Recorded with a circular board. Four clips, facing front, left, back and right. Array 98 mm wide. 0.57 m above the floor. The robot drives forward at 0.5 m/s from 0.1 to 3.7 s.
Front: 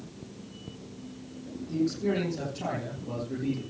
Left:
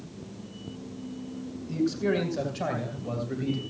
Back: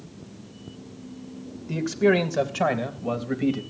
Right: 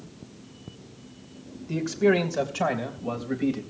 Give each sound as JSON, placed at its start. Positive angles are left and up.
{"t": 1.7, "sound": "a man speaking", "azimuth_deg": -155, "distance_m": 2.0}